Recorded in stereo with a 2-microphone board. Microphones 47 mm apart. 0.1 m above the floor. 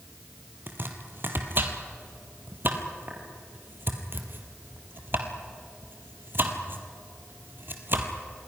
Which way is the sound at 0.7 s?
50° right (ahead or behind).